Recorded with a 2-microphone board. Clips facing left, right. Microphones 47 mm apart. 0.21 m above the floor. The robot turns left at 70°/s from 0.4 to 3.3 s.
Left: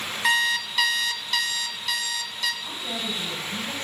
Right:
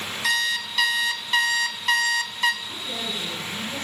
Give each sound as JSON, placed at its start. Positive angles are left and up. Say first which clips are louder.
{"t": 0.2, "sound": "an alarm clock", "louder": "left 2 dB", "azimuth_deg": 35, "distance_m": 1.1}
{"t": 2.6, "sound": "a woman speaking", "louder": "even", "azimuth_deg": 85, "distance_m": 6.0}